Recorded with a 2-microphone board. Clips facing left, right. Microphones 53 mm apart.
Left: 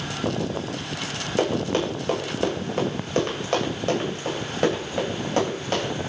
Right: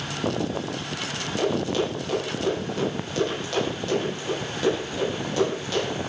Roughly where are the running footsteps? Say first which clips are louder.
Left 1 dB; left.